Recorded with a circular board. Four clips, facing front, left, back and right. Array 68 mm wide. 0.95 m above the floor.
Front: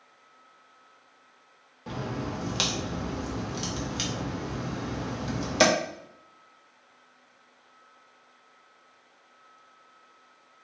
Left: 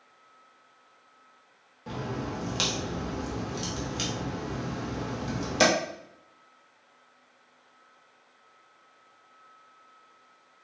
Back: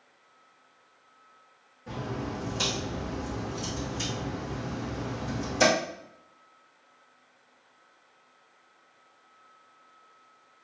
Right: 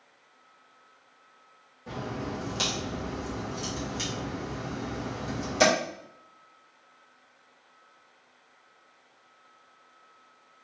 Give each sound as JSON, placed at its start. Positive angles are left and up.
{"t": 1.9, "sound": "a crack", "azimuth_deg": 20, "distance_m": 1.1}